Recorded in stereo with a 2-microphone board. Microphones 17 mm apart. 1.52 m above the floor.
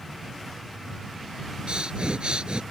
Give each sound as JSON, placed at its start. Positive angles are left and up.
{"t": 1.7, "sound": "breathing", "side_deg": -70}